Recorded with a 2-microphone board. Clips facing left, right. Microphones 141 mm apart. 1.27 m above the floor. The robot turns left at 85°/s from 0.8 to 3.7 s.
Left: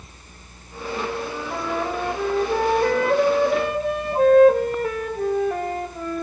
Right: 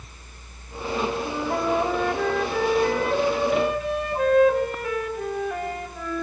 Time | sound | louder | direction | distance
1.2 | a flute | right 3 dB | 110° right | 4.5 m